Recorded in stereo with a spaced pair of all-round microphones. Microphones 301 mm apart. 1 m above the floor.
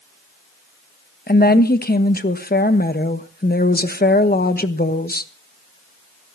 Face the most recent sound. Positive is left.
turn(degrees=30)  # may be behind; listen again after turning